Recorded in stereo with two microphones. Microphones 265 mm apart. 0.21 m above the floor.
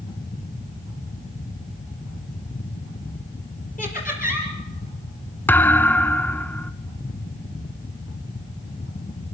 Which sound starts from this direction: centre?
A thud, at 5.5 s.